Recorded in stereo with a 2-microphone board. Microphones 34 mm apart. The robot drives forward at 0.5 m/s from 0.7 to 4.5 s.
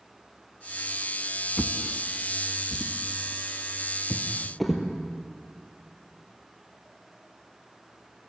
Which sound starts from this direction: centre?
A drawer, at 1.6 s.